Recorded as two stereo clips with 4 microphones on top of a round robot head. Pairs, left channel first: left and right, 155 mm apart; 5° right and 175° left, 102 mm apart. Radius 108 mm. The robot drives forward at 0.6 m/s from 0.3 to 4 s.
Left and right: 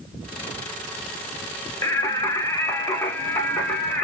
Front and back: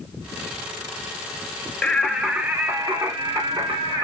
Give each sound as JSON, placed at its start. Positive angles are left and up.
{"t": 1.8, "sound": "singing", "azimuth_deg": 60, "distance_m": 0.9}